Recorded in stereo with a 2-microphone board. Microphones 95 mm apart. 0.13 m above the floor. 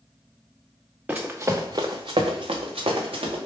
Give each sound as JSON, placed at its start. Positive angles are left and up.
{"t": 1.1, "sound": "running footsteps", "side_deg": -15, "distance_m": 0.7}